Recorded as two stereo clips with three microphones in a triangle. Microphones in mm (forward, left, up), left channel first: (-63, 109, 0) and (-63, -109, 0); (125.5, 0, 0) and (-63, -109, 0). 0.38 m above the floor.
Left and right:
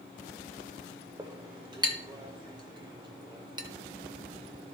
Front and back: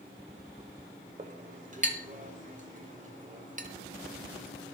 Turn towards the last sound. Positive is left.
turn(degrees=-145)